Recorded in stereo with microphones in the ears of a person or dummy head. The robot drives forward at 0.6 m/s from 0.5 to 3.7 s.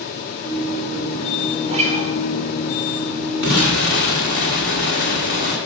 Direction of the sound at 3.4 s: 70° left (ahead or behind).